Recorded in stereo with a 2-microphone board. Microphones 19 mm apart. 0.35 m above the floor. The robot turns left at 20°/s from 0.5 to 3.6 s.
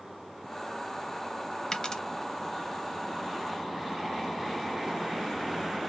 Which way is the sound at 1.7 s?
40° left (ahead or behind).